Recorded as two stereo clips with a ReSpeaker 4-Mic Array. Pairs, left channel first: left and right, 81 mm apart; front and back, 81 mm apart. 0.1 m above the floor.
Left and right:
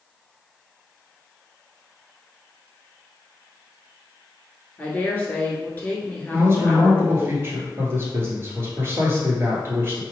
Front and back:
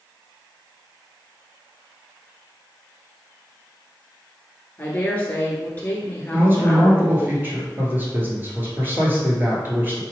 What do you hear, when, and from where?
4.8 s a woman speaking: 45° left, 1.3 m
6.3 s a man speaking: 130° right, 1.5 m